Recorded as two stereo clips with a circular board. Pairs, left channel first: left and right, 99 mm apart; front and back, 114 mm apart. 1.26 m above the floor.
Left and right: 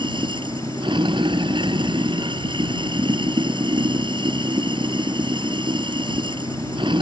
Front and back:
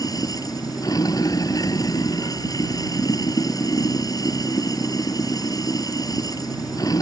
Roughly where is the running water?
Ahead right.